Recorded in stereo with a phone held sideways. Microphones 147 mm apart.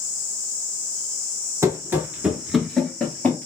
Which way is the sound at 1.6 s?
20° right (ahead or behind).